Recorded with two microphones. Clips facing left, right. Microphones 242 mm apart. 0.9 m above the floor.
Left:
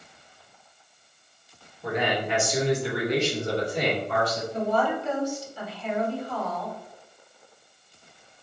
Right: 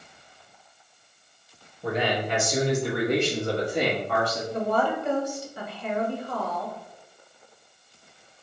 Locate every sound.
1.8 s a man speaking: 30° right (ahead or behind), 1.6 m; by 4.4 s 65° right (ahead or behind), 1.9 m
4.5 s a woman speaking: 60° right (ahead or behind), 1.3 m